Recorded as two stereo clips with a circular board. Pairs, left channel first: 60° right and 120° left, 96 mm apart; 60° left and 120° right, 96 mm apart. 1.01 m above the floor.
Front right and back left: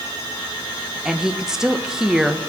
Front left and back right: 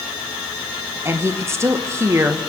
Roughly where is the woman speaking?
Behind.